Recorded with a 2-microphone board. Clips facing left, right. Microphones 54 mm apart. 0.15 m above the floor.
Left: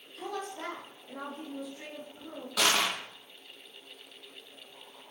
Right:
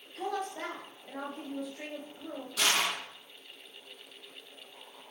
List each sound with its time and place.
0.1 s a woman speaking: 55° right (ahead or behind), 3 m
2.6 s crushing: 75° left (ahead or behind), 1.6 m